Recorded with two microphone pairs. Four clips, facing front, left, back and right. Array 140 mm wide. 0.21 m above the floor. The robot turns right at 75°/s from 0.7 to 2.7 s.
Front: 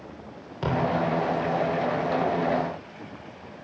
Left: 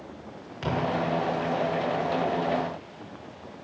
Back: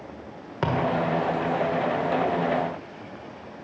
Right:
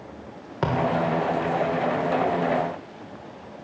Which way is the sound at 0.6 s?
120° right.